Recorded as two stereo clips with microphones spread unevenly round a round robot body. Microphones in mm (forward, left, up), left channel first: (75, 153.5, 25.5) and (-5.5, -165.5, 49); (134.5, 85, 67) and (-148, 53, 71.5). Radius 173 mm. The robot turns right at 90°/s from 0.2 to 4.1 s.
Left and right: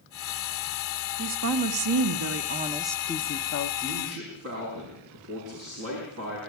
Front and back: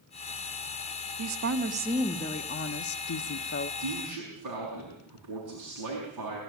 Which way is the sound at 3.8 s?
Straight behind.